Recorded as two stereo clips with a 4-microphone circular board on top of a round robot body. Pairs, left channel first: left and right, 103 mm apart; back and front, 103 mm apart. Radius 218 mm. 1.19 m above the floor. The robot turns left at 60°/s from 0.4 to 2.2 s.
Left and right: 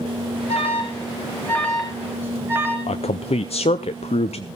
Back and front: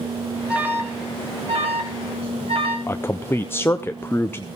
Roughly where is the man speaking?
Left.